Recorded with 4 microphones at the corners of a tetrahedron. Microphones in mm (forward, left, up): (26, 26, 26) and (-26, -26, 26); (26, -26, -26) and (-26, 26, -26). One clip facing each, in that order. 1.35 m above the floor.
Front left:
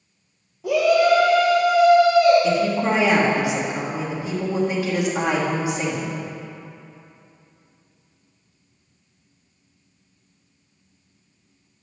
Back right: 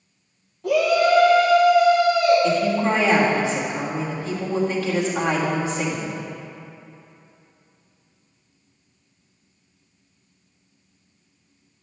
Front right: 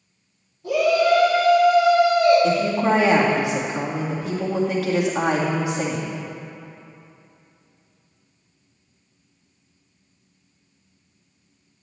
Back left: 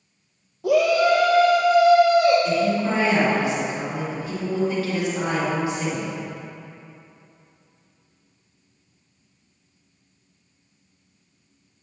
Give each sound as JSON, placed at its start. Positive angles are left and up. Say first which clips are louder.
{"t": 0.6, "sound": "a shout", "louder": "front left 1 dB, even", "azimuth_deg": 130, "distance_m": 1.1}
{"t": 2.4, "sound": "a woman speaking", "louder": "even, front right 2 dB", "azimuth_deg": -30, "distance_m": 2.0}